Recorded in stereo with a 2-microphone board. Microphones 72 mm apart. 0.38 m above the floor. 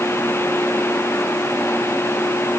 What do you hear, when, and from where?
Only background noise.